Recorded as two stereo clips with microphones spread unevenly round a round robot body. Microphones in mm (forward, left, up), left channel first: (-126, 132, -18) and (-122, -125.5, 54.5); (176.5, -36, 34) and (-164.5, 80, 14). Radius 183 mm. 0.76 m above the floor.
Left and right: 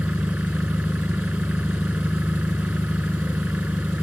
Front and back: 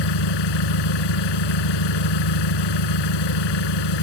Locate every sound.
0.0 s an engine running: 5° right